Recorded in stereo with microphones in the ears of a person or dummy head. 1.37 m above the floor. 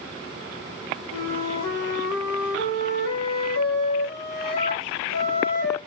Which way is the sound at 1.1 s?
70° left (ahead or behind).